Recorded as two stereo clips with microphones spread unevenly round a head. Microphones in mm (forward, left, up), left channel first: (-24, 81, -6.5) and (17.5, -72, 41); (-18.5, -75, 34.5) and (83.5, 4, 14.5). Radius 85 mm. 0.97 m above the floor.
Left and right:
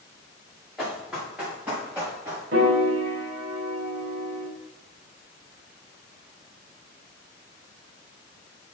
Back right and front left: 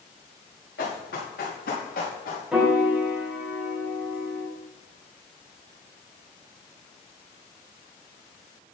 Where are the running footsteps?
160° right, 5 m; by 2.4 s 150° right, 6 m.